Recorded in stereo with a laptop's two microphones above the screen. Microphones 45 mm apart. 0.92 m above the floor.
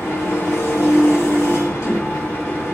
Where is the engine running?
65° left (ahead or behind), 1.3 m.